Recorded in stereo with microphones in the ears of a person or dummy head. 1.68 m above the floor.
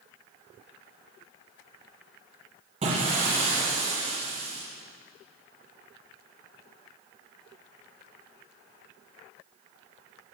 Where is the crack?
No crack in this recording.